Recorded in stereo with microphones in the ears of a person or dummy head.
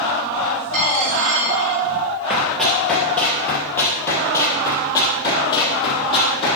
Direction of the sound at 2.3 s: 5° right (ahead or behind).